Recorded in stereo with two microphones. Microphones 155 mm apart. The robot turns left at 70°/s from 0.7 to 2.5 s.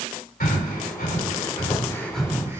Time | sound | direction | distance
0.4 | breathing | 75° left (ahead or behind) | 4 m